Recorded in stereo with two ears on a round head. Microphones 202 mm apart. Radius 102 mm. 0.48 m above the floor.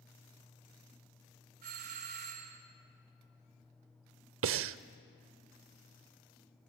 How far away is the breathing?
About 0.6 m.